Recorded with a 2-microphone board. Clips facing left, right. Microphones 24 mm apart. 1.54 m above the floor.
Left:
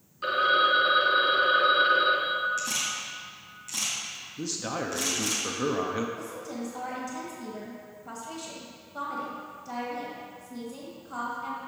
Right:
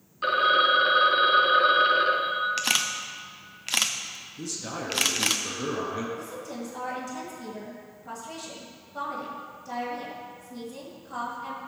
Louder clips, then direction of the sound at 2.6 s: Right 5 dB; 65° right (ahead or behind).